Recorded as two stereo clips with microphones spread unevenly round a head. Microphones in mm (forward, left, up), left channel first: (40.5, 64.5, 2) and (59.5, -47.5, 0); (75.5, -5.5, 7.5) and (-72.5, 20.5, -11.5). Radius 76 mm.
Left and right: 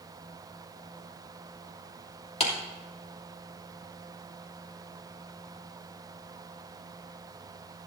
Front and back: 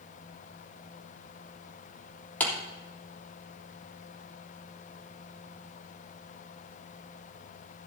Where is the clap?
70° left, 3 m.